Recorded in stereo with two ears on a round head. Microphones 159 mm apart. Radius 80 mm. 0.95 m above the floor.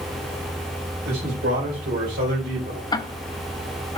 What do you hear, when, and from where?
1.1 s a man speaking: 55° right (ahead or behind), 4 m; by 2.8 s 65° right (ahead or behind), 3 m
2.9 s ticking: 25° left (ahead or behind), 0.7 m